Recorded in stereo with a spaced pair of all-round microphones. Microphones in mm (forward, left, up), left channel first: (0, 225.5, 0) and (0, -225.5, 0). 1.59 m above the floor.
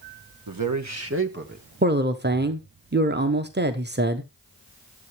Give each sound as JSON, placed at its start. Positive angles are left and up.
{"t": 0.5, "sound": "a man speaking", "side_deg": -50, "distance_m": 1.4}
{"t": 1.8, "sound": "a man speaking", "side_deg": -25, "distance_m": 1.0}